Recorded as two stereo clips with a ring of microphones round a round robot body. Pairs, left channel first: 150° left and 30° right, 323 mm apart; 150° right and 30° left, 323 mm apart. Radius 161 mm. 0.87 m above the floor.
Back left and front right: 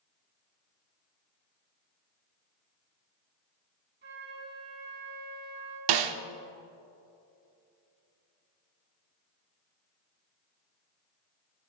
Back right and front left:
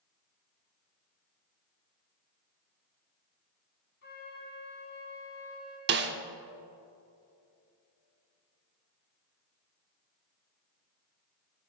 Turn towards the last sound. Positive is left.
turn(degrees=-25)